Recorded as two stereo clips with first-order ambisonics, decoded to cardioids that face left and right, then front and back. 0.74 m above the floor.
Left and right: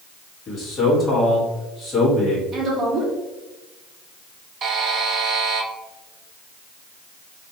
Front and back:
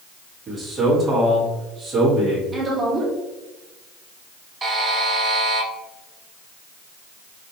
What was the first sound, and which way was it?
A man speaking, 125° left.